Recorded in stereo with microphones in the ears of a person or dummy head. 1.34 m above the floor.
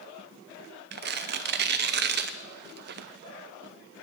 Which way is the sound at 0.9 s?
50° right (ahead or behind).